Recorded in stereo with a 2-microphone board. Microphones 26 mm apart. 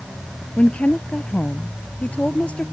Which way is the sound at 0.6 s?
60° left (ahead or behind).